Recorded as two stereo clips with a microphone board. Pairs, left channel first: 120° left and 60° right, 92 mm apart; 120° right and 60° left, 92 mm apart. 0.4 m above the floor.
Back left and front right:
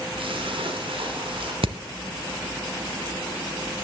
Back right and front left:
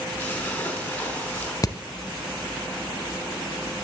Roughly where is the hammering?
Right.